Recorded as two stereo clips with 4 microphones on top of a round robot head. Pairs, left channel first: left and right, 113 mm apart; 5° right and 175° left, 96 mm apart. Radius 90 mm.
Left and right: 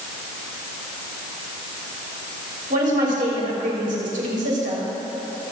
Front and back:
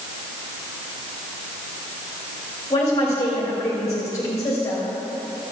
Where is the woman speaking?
70° right, 3.5 m.